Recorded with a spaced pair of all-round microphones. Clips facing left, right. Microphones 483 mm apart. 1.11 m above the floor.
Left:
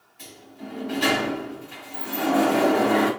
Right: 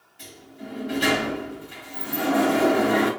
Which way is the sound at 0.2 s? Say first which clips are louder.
Even; 40° right (ahead or behind).